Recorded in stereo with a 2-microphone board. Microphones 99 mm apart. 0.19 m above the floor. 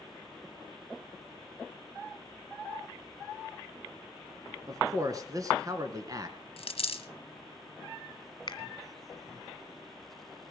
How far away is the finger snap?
About 1.5 m.